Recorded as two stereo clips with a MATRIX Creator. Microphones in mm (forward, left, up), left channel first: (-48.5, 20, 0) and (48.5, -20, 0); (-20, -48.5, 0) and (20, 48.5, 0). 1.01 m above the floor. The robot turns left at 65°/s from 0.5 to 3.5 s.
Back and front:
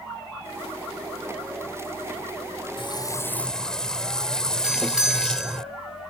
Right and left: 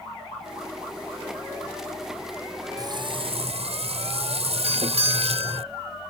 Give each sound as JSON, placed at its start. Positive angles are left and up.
{"t": 2.8, "sound": "frying", "azimuth_deg": 120}
{"t": 4.6, "sound": "a doorbell", "azimuth_deg": 60}